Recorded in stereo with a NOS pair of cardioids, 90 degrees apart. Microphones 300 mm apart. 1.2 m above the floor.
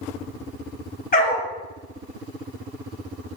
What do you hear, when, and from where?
1.1 s a dog barking: 30° left, 2.5 m